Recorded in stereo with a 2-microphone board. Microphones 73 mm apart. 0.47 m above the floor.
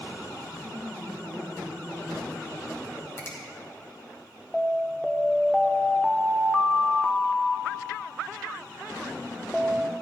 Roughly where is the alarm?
Centre.